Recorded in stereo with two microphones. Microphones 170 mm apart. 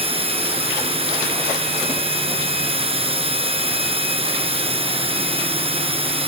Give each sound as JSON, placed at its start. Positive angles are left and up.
{"t": 0.0, "sound": "a drone", "side_deg": -35}